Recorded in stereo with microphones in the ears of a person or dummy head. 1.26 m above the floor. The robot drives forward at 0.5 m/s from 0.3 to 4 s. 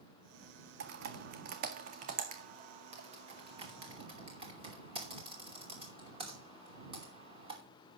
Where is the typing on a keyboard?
65° right (ahead or behind), 1.5 m; by 7.6 s 30° right (ahead or behind), 2.5 m.